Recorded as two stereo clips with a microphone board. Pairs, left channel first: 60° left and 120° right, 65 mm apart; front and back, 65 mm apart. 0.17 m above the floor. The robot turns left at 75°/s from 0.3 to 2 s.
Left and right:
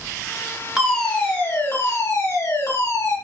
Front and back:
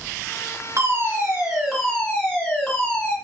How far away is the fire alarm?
About 3 m.